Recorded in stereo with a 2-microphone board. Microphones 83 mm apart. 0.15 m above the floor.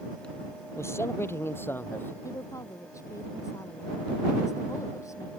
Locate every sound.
0.8 s a man speaking: 35° left (ahead or behind); by 2.1 s 25° left (ahead or behind)
2.2 s a woman speaking: 40° left (ahead or behind)